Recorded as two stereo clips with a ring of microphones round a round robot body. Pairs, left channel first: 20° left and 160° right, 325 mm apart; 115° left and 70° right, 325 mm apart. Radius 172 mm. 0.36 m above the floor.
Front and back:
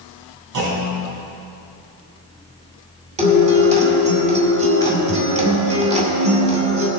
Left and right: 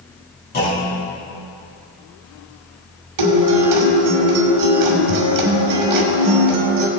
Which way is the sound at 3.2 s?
90° right.